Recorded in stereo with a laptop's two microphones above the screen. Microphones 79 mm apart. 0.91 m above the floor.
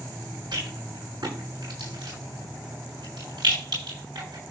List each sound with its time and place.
0.5 s a rattle: 70° right (ahead or behind), 9 m